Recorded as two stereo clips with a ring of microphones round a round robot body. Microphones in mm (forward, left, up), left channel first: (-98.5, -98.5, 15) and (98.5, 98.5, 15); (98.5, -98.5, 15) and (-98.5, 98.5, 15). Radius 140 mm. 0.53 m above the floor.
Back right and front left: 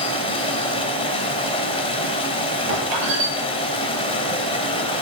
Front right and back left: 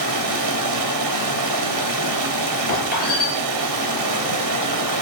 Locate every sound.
0.0 s running water: 150° left, 3 m
2.7 s a squeak: 15° left, 8 m